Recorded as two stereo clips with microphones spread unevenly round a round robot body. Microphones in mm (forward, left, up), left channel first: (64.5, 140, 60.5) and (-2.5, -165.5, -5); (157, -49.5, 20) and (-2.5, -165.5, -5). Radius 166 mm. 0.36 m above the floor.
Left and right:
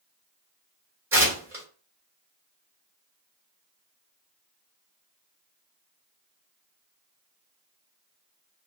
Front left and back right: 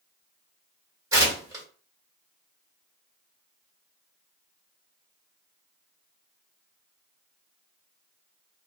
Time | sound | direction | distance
1.1 | tearing paper | 140° right | 1.4 m